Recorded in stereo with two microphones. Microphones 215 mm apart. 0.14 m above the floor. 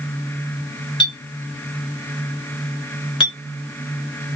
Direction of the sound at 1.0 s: 20° left (ahead or behind).